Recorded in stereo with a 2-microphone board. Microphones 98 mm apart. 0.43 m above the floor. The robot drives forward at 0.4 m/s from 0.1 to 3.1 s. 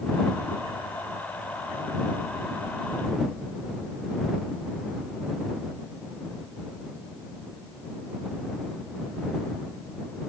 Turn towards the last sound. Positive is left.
No sound to turn to.